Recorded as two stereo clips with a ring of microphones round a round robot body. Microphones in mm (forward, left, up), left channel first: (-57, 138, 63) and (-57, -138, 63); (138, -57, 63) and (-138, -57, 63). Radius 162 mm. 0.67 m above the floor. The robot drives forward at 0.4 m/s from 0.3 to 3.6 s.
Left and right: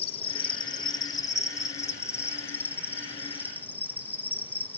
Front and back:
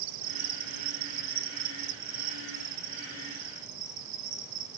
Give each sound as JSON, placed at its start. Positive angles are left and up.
{"t": 0.0, "sound": "an insect", "azimuth_deg": 160, "distance_m": 0.7}